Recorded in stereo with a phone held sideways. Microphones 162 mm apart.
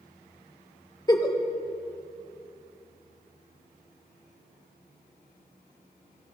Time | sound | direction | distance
1.1 | a giggle | 25° left (ahead or behind) | 0.8 m